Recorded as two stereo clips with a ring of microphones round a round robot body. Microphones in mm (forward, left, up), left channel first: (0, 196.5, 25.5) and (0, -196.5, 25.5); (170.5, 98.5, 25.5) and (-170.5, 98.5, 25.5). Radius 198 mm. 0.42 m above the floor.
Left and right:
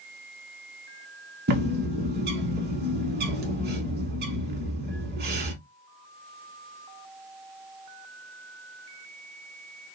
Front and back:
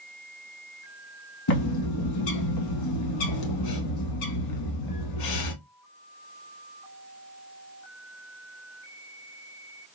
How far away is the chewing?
No chewing in this recording.